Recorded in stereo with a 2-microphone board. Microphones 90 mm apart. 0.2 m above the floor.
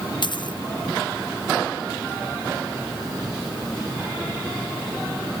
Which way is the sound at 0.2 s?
55° left (ahead or behind).